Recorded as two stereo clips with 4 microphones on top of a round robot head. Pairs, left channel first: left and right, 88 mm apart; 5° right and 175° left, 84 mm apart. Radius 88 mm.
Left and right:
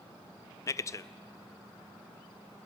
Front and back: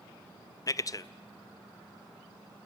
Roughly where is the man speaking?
Ahead left.